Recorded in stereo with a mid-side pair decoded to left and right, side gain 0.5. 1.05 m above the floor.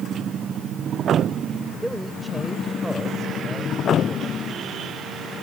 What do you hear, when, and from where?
1.8 s a man speaking: 5° right